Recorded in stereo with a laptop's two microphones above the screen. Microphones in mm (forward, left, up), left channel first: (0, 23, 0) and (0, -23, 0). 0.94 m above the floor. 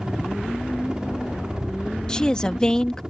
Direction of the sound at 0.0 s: 15° right (ahead or behind).